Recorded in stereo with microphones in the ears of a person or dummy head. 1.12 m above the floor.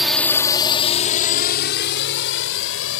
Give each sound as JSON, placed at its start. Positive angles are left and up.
{"t": 0.0, "sound": "a drone", "side_deg": -5}